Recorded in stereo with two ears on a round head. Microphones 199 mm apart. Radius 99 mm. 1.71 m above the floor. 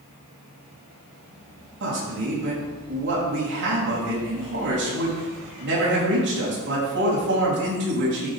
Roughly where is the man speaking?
Right.